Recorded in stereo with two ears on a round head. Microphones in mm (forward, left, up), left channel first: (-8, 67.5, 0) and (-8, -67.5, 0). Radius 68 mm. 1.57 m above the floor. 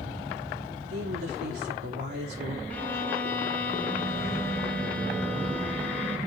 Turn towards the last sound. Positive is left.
turn(degrees=10)  # may be behind; listen again after turning